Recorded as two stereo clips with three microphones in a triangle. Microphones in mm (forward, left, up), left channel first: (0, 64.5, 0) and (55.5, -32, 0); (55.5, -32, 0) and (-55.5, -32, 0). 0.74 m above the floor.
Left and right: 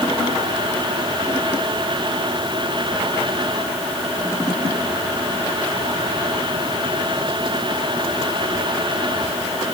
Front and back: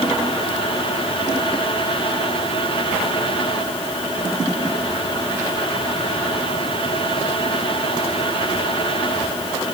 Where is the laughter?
I don't hear laughter.